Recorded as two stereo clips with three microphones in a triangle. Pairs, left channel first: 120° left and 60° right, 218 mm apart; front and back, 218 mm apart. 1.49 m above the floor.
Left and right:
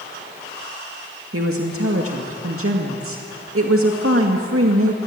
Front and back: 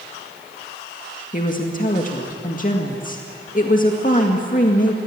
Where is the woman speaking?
55° right, 2 m.